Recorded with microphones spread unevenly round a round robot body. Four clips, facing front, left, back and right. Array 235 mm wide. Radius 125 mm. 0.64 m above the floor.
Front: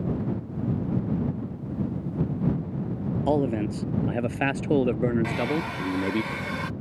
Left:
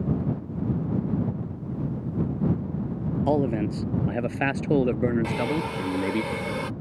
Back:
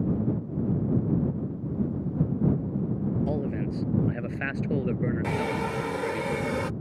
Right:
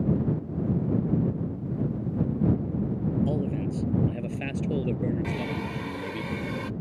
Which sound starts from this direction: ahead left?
A man speaking, at 3.3 s.